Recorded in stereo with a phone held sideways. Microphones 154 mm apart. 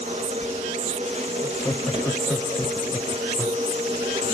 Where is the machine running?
50° right (ahead or behind), 1.7 m.